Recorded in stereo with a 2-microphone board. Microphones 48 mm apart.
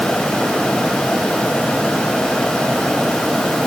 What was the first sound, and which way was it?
Only background noise.